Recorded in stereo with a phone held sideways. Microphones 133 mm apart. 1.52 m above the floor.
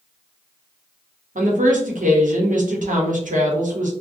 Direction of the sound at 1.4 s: 75° right (ahead or behind).